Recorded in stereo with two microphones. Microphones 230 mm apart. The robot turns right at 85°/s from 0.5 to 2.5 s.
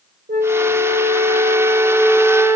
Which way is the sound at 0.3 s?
120° right.